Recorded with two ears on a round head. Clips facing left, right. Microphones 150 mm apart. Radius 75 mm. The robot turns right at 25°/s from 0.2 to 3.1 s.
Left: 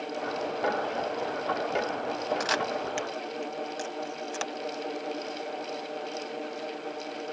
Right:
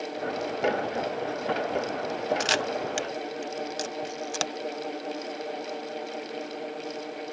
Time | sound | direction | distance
2.4 | a camera shutter | 30° right (ahead or behind) | ?